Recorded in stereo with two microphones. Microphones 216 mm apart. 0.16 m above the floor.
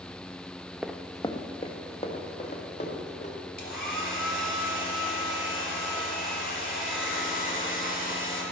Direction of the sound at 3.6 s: 40° left (ahead or behind).